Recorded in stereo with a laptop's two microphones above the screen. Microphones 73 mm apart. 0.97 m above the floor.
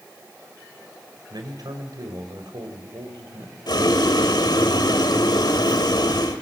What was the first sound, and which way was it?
A man speaking, 65° right (ahead or behind).